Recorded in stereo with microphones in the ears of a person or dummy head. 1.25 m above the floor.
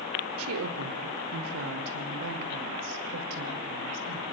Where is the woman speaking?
85° right, 3 m.